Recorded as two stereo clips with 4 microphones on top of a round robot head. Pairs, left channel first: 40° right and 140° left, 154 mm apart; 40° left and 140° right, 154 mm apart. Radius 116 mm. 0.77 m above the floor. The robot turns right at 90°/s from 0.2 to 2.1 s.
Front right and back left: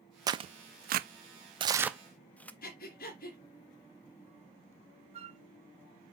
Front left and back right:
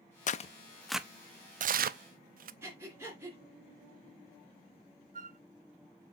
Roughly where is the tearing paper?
Left.